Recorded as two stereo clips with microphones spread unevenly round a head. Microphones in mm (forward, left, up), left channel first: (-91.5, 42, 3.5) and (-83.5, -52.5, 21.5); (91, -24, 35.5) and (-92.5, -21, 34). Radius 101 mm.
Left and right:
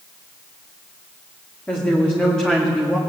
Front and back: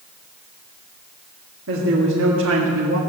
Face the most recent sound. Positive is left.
turn(degrees=-170)